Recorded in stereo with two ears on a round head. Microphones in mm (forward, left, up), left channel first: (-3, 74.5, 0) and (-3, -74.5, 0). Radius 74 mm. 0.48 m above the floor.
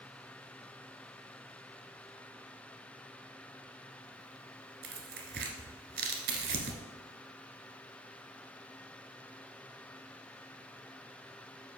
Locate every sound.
4.8 s tearing paper: 70° right (ahead or behind), 1.1 m